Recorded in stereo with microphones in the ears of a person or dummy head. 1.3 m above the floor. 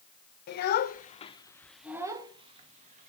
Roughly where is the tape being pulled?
I don't hear tape being pulled.